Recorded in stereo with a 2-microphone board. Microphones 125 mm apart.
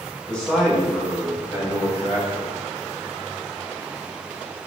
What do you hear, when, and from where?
0.3 s a man speaking: 10° left (ahead or behind), 0.8 m; by 2.5 s 30° right (ahead or behind), 1.7 m